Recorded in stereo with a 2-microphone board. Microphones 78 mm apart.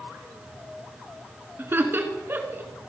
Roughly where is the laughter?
Right.